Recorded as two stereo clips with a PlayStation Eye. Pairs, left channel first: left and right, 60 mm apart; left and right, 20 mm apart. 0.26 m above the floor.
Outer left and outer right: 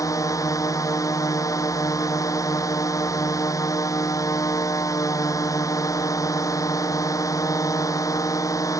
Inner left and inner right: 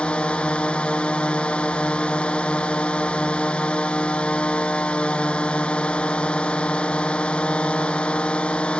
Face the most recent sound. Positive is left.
turn(degrees=65)  # may be behind; listen again after turning